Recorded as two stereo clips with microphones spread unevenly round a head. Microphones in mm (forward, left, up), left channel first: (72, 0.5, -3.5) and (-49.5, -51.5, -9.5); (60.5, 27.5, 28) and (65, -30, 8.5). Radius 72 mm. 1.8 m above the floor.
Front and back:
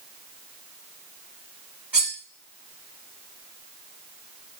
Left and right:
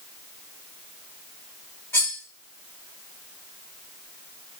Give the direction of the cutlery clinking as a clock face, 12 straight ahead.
8 o'clock.